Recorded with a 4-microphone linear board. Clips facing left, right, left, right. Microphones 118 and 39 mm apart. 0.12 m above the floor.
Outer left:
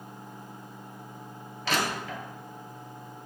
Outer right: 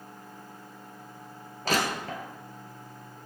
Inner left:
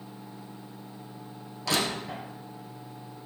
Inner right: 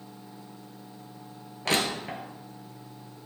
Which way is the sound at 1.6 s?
45° right (ahead or behind).